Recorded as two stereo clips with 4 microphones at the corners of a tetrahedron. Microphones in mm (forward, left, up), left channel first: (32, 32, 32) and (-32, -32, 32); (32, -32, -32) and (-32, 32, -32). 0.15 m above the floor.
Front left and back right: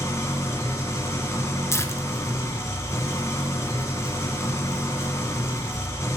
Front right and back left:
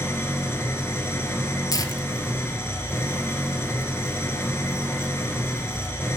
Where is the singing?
I don't hear singing.